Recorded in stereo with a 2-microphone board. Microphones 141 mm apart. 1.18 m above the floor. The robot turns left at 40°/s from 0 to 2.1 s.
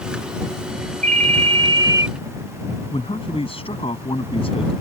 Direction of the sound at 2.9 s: 40° left (ahead or behind).